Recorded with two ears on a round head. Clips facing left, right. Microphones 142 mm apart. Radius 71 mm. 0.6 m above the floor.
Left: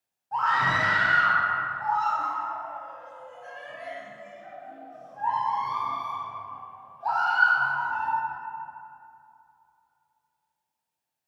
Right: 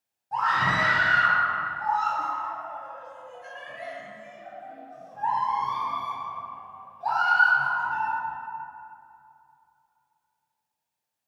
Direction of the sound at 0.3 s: 15° right (ahead or behind).